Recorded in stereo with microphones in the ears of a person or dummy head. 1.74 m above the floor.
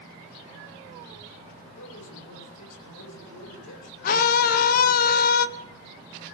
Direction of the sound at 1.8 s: 85° left.